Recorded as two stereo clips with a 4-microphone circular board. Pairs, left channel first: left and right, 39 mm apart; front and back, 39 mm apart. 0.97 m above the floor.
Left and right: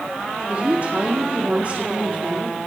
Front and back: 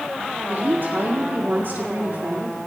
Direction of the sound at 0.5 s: 145° right.